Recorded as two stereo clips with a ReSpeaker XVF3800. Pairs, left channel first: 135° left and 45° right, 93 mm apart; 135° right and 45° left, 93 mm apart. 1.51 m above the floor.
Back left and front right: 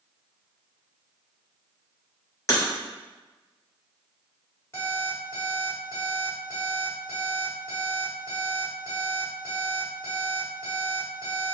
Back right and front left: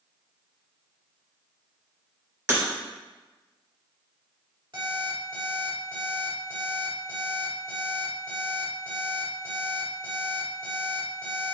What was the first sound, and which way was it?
Breaking glass, 95° left.